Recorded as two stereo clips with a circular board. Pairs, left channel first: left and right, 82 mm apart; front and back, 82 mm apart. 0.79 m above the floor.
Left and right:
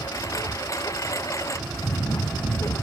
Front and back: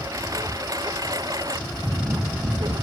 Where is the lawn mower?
135° left; by 2.9 s 145° left.